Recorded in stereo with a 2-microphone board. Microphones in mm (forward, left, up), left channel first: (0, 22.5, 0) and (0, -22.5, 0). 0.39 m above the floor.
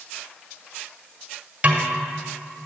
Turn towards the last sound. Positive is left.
turn(degrees=-30)  # may be behind; listen again after turning